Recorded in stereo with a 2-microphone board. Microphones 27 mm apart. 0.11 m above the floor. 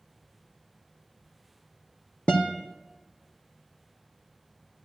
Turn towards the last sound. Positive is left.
turn(degrees=45)  # may be behind; listen again after turning